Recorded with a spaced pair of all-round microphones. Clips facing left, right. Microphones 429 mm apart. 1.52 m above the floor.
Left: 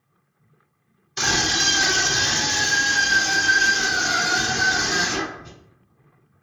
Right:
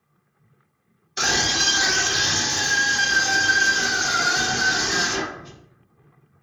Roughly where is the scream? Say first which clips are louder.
Left 1 dB; centre.